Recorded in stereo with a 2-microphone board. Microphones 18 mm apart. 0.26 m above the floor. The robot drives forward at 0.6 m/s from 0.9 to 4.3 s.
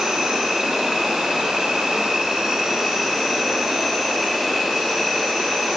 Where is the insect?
60° right (ahead or behind), 0.9 m; by 5.8 s 25° right (ahead or behind), 1.9 m.